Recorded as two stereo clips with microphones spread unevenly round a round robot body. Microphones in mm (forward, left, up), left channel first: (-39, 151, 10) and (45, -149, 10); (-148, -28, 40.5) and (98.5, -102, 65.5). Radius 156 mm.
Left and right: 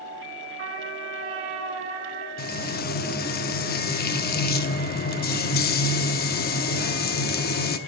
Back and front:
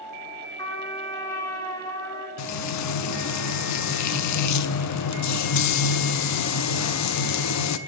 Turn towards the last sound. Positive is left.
turn(degrees=165)